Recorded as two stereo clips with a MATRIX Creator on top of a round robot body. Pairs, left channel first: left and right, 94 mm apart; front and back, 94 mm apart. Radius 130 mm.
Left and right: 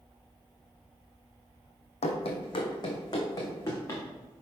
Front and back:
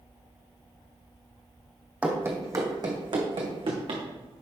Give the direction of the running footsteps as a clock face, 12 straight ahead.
9 o'clock.